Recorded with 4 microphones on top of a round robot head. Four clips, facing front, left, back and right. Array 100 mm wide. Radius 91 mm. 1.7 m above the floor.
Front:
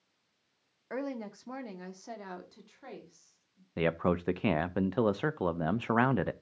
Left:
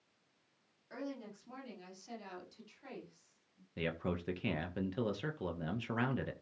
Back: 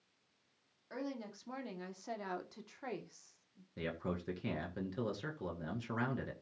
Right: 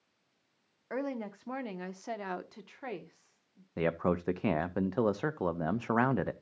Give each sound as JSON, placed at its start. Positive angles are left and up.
{"t": 0.9, "sound": "a woman speaking", "azimuth_deg": -55, "distance_m": 1.7}
{"t": 3.8, "sound": "a man speaking", "azimuth_deg": -40, "distance_m": 0.6}